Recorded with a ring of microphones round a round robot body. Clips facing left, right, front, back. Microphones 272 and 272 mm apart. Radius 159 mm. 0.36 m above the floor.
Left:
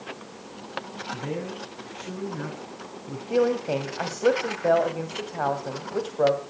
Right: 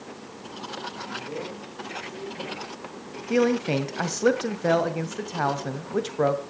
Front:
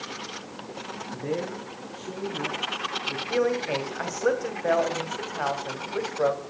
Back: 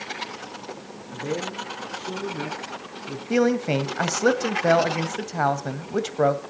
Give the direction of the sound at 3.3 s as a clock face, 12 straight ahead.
5 o'clock.